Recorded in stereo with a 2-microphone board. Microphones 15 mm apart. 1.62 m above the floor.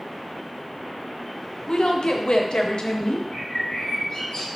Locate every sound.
1.7 s a woman speaking: 80° left, 0.7 m
3.3 s a bird: 65° left (ahead or behind), 1.6 m